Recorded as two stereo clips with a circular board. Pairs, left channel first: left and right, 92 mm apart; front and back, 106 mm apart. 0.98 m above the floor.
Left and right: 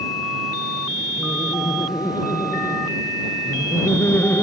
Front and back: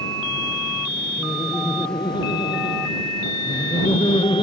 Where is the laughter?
45° left; by 4.4 s 30° left.